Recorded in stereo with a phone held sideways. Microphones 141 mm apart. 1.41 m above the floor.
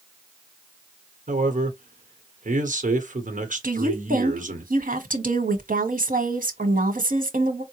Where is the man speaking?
70° right (ahead or behind), 1.0 m.